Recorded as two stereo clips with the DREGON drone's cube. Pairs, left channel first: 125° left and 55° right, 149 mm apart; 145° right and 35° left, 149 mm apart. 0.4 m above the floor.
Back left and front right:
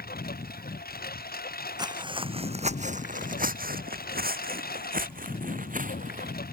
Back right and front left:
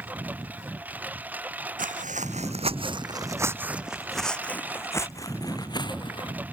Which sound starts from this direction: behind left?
A lawn mower, at 0.0 s.